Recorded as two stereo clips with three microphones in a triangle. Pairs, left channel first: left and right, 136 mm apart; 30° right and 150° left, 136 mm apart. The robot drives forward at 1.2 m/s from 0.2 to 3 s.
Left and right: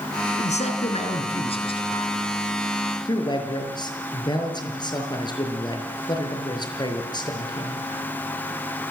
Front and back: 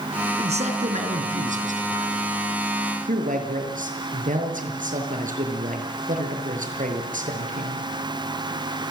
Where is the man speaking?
115° left, 3.5 m; by 7.8 s 145° left, 5.5 m.